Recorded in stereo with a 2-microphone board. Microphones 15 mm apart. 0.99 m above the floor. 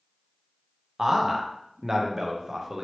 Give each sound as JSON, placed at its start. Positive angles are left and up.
{"t": 1.0, "sound": "a man speaking", "side_deg": -30, "distance_m": 0.6}